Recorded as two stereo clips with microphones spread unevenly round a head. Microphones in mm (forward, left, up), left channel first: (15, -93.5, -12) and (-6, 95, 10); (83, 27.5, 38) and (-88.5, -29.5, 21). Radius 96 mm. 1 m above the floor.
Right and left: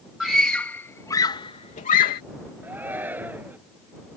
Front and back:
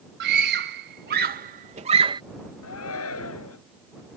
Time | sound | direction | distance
0.2 | a scream | 175° right | ?
2.6 | a shout | 15° left | ?